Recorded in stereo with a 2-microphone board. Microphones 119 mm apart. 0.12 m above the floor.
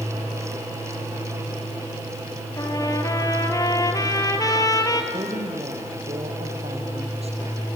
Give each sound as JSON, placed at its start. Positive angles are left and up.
{"t": 2.6, "sound": "a trumpet", "side_deg": 30, "distance_m": 1.7}
{"t": 5.1, "sound": "a woman speaking", "side_deg": -60, "distance_m": 3.5}